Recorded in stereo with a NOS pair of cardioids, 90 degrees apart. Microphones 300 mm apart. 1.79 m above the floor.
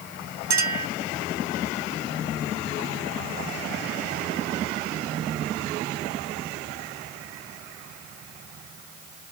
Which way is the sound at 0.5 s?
65° right.